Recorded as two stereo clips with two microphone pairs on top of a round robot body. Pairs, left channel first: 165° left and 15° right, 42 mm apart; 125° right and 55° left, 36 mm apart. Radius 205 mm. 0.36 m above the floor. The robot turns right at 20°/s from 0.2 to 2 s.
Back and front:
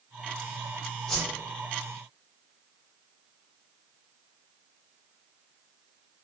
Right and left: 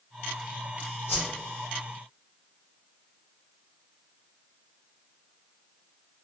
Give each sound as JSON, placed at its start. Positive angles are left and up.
{"t": 1.1, "sound": "a whoosh", "azimuth_deg": -115, "distance_m": 1.0}